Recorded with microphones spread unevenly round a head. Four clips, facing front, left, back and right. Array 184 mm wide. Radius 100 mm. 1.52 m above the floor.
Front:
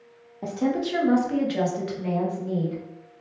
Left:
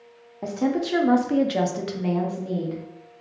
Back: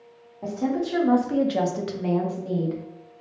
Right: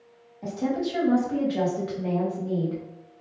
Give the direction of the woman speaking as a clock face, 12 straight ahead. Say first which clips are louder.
Left 3 dB, even; 10 o'clock.